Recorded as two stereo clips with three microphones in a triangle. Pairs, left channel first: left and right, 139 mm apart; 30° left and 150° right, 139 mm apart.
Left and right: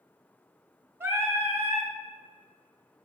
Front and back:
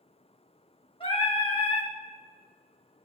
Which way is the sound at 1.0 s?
20° right.